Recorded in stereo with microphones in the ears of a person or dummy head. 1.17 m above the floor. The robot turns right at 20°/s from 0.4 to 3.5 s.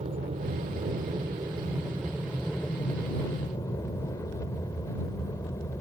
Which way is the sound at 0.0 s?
35° right (ahead or behind).